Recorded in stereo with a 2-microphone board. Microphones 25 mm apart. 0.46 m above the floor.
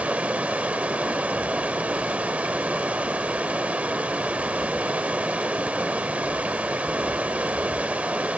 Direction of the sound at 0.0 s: 65° right (ahead or behind).